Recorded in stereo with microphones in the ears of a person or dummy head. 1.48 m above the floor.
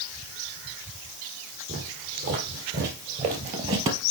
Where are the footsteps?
60° right (ahead or behind), 3 m; by 4.0 s 25° right (ahead or behind), 1.7 m.